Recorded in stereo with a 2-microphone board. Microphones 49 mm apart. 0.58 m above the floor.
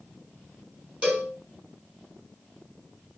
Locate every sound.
1.0 s a cowbell: 25° right (ahead or behind), 5.5 m